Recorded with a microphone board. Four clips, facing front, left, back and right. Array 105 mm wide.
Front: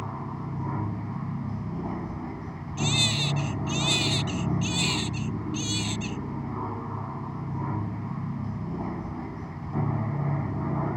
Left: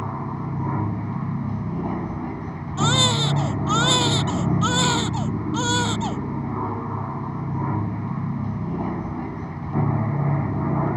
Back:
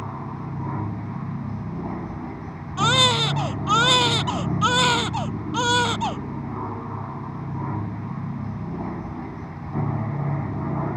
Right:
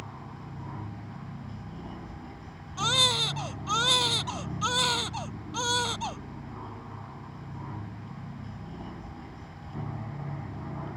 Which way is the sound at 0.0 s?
100° left.